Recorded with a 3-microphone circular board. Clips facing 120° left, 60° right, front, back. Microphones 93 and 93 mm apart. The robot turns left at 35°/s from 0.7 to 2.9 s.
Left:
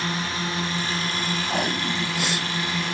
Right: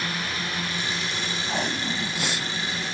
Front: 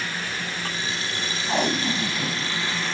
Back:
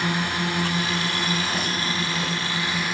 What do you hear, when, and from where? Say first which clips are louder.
0.0 s a drone: left 3 dB, back 6 dB; 175° left; by 3.0 s 100° left
1.5 s tape being pulled: left 1 dB, front 3 dB; 45° left; by 2.5 s 5° left